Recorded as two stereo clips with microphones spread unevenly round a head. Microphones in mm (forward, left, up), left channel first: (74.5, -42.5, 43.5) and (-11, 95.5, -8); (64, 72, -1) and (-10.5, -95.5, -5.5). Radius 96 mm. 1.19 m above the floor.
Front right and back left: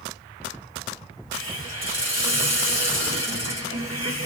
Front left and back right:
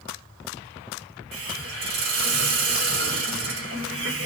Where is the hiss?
160° right, 2.5 m.